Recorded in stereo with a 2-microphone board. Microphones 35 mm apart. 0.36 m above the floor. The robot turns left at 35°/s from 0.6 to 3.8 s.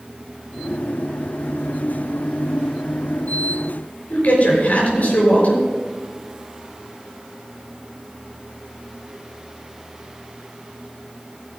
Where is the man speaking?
50° left (ahead or behind), 5.5 m.